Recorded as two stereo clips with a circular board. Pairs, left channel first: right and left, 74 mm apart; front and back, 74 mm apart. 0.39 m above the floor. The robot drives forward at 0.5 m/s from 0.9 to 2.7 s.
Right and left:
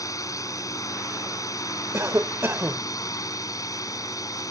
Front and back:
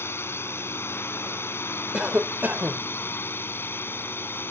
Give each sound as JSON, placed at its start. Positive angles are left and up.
{"t": 0.0, "sound": "a drone", "azimuth_deg": -55}
{"t": 1.9, "sound": "a cough", "azimuth_deg": 110}